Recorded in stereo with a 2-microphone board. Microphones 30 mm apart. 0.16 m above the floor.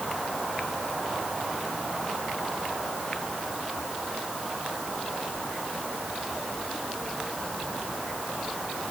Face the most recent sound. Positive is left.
No sound to turn to.